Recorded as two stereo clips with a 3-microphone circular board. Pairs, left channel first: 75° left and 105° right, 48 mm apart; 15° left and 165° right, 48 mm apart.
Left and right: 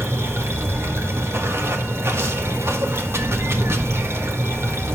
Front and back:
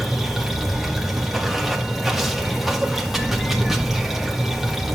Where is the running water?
80° right, 1.9 m.